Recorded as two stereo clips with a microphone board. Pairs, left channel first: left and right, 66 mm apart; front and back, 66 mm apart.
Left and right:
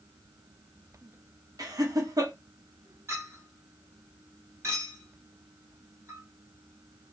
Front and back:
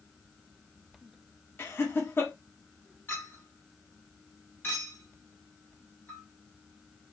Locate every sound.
1.6 s laughter: 60° right, 1.1 m
3.1 s a clink: 55° right, 1.8 m